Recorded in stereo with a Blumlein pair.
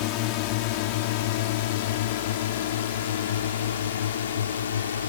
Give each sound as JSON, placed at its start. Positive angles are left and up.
{"t": 0.0, "sound": "a drone", "azimuth_deg": 45}